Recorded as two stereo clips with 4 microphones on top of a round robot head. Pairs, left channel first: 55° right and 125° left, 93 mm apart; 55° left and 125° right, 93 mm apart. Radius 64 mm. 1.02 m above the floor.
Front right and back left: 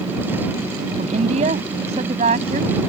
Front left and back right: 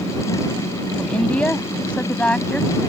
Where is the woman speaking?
135° left.